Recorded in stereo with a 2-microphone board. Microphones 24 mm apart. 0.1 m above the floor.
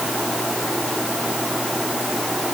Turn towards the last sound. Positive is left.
No sound to turn to.